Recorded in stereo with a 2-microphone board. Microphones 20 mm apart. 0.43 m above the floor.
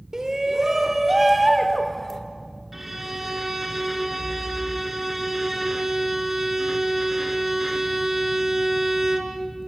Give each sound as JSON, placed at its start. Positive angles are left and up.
{"t": 0.1, "sound": "a shout", "side_deg": -30, "distance_m": 1.5}
{"t": 2.7, "sound": "a violin", "side_deg": -10, "distance_m": 2.0}